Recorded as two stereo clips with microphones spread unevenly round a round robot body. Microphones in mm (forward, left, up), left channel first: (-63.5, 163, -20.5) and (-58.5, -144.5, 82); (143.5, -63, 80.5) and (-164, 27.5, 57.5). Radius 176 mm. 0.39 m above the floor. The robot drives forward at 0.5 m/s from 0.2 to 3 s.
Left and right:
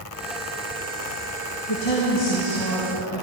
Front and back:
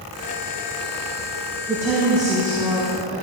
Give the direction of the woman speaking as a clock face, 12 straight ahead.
9 o'clock.